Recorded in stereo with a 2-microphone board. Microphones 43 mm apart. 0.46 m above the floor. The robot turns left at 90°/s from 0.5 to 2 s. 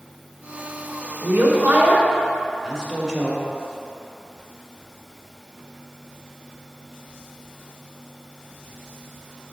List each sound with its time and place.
1.2 s a woman speaking: 55° right (ahead or behind), 1.7 m; by 3.4 s 15° right (ahead or behind), 1.7 m